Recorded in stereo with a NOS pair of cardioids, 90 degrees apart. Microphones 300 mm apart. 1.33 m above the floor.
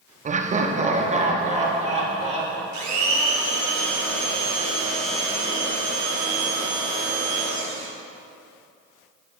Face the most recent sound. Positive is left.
turn(degrees=-70)